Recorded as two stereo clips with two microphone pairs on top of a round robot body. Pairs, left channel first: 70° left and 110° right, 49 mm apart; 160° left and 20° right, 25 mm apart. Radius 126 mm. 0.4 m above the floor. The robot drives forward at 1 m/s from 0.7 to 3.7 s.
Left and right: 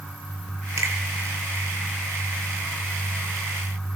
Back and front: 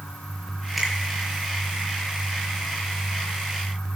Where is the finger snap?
110° right, 8.5 m.